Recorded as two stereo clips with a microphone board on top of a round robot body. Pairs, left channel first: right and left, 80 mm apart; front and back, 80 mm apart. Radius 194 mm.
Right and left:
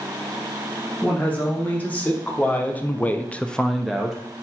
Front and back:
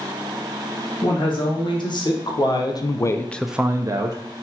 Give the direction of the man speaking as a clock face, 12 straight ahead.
1 o'clock.